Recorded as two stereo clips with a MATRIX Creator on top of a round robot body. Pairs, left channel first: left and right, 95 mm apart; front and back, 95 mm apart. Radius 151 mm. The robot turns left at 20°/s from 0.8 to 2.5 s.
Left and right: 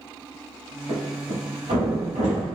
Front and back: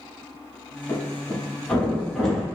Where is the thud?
60° right, 1.2 m; by 2.5 s 90° right, 1.2 m.